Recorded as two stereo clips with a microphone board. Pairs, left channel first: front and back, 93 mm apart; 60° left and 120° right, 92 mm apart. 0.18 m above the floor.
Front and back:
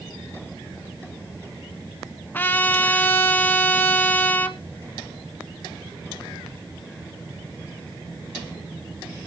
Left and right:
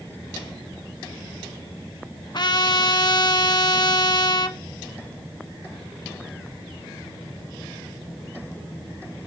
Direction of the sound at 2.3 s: 65° left.